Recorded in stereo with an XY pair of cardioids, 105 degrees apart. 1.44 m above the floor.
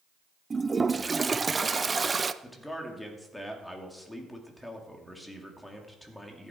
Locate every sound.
0.5 s a toilet flushing: 25° right, 0.6 m
2.4 s a man speaking: 10° left, 3 m